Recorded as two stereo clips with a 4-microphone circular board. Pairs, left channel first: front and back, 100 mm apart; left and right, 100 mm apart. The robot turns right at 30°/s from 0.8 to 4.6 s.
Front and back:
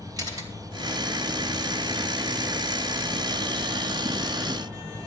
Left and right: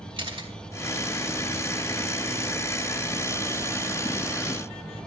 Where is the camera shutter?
130° right, 2.5 m.